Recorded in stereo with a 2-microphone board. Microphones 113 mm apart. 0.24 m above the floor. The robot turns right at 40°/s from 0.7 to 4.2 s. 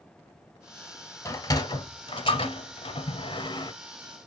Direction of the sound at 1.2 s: 25° left (ahead or behind).